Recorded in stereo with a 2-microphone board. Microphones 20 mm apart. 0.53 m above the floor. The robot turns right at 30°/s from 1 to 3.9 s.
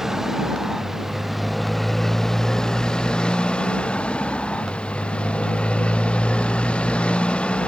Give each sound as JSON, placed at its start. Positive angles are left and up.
{"t": 0.0, "sound": "a motorcycle", "side_deg": -25}